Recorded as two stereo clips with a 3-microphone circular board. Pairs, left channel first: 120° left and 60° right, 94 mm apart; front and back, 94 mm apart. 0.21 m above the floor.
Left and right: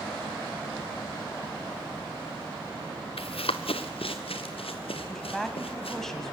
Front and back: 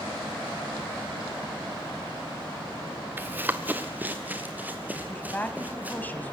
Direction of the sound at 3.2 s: 110° left.